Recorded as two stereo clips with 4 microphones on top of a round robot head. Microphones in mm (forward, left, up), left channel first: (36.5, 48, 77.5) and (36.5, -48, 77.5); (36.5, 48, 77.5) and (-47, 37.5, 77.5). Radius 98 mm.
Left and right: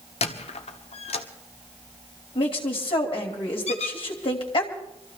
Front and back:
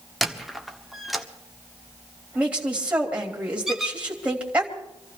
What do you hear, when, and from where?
0.2 s a squeak: 100° left, 1.3 m
2.4 s a woman speaking: 115° left, 2.5 m
3.7 s a squeak: 100° left, 2 m